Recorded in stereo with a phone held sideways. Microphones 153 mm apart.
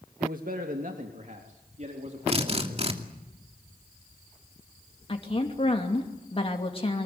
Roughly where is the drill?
Right.